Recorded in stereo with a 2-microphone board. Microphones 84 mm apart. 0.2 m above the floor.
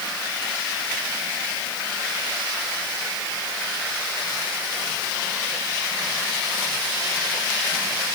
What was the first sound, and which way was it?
Only background noise.